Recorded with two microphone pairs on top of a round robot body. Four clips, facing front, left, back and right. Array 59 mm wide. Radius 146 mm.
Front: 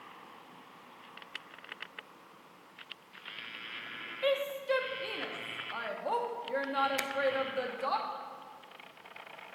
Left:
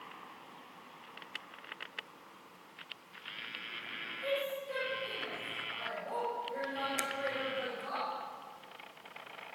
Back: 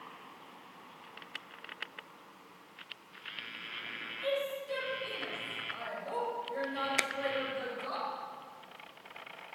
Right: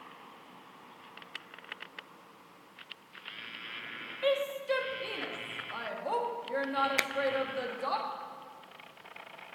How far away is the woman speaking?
About 2.5 m.